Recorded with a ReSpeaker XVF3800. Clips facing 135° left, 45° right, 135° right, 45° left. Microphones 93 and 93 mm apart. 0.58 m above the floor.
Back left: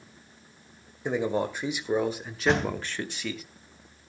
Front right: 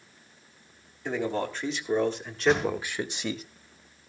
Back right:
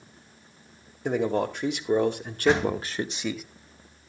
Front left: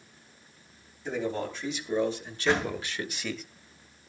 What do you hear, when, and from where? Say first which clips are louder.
1.1 s a man speaking: back left 2 dB, back right 6 dB; 150° right, 2.5 m; by 3.4 s 60° right, 0.9 m
2.5 s a door slam: front right 1 dB, back right 5 dB; 155° left, 2.5 m